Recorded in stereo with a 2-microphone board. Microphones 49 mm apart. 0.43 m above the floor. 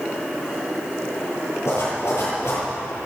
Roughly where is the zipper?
Left.